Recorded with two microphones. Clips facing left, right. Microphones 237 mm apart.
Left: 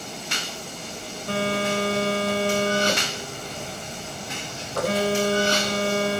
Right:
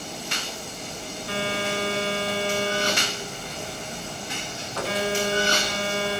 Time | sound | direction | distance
1.3 | a phone buzzing | 45° left (ahead or behind) | 2 m